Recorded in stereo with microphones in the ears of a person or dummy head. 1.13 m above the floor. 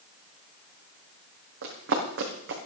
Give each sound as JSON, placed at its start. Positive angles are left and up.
{"t": 1.6, "sound": "running footsteps", "side_deg": -70, "distance_m": 3.0}